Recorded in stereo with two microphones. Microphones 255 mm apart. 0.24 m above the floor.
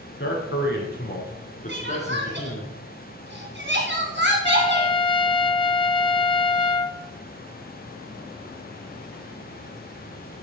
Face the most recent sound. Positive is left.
turn(degrees=20)  # may be behind; listen again after turning